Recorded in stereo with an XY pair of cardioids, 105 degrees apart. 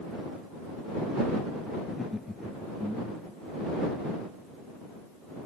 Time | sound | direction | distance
1.9 | laughter | 30° left | ?